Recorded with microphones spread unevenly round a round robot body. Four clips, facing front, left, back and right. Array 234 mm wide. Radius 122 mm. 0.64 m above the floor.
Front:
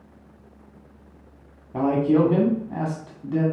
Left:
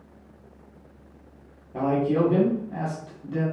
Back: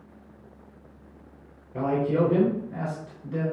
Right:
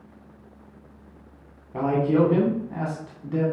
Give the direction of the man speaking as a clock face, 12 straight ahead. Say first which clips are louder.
Right 2 dB, front 5 dB; 12 o'clock.